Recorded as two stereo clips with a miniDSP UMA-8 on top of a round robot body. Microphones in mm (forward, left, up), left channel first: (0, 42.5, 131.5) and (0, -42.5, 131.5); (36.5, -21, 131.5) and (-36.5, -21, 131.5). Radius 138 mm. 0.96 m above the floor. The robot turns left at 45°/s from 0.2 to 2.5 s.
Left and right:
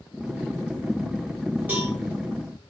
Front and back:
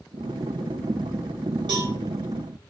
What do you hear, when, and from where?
1.7 s a cowbell: 160° right, 0.9 m; by 1.9 s 175° right, 0.9 m